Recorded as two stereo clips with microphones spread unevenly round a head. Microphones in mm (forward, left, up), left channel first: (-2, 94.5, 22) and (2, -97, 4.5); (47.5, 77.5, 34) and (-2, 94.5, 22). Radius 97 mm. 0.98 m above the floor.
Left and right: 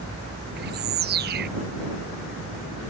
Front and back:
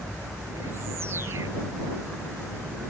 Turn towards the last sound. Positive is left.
turn(degrees=-130)